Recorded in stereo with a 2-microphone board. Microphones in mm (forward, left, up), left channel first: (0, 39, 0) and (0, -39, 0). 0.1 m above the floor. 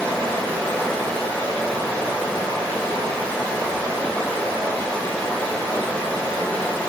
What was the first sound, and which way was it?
Running water, 15° left (ahead or behind).